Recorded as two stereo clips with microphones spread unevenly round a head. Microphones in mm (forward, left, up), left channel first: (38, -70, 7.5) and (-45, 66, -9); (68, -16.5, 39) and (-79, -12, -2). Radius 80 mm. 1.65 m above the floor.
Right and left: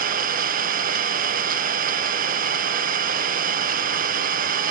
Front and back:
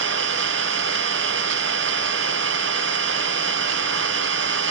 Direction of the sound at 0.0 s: 160° left.